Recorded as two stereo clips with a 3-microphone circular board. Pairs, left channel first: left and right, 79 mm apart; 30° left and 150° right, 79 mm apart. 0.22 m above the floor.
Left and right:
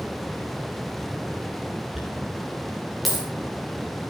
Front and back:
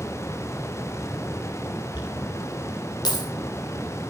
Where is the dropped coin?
Straight ahead, 5.5 m.